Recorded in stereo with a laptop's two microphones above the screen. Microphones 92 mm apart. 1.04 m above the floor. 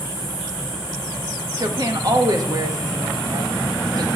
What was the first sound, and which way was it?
A woman speaking, 45° right (ahead or behind).